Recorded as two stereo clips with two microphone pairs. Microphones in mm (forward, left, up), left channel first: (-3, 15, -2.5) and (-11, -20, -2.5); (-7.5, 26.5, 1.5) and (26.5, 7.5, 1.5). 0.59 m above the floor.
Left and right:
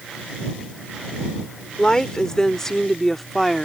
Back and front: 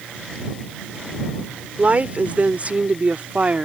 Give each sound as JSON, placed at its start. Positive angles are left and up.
{"t": 1.8, "sound": "a woman speaking", "azimuth_deg": 10}